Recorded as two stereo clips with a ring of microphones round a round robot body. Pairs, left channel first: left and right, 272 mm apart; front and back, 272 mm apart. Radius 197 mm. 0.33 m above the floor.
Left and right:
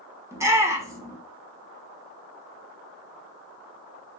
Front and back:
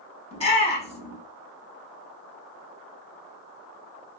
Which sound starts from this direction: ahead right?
A shout, at 0.3 s.